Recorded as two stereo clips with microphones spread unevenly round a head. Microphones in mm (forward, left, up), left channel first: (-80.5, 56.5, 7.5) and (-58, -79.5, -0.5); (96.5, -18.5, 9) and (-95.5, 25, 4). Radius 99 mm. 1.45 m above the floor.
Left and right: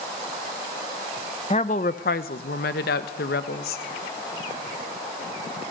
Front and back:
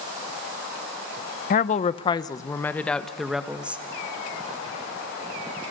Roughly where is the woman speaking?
Ahead left.